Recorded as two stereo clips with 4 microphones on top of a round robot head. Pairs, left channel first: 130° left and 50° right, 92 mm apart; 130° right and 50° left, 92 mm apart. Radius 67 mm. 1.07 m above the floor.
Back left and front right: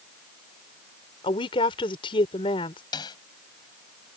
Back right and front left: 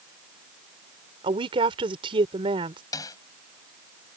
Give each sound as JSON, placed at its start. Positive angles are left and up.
{"t": 1.2, "sound": "a woman speaking", "azimuth_deg": 90}
{"t": 2.9, "sound": "a snare drum", "azimuth_deg": 175}